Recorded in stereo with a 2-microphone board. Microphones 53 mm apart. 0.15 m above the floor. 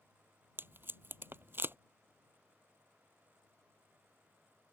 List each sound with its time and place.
0.6 s tape being pulled: 45° right (ahead or behind)